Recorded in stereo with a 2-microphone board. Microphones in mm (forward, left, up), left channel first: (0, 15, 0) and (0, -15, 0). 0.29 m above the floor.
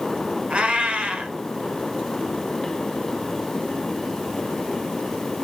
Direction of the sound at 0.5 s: 35° right (ahead or behind).